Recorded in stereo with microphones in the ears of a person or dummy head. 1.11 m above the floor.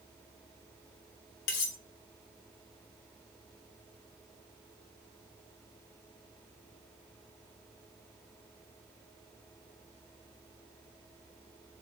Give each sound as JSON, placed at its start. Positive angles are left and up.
{"t": 1.5, "sound": "cutlery clinking", "side_deg": 65, "distance_m": 0.7}